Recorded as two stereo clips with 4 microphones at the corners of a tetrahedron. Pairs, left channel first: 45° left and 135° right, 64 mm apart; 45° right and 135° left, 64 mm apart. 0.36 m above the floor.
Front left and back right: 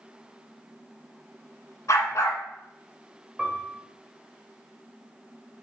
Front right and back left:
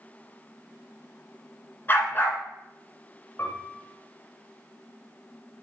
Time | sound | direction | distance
1.9 | a dog barking | 15° left | 1.4 m
3.4 | a piano | 50° right | 1.4 m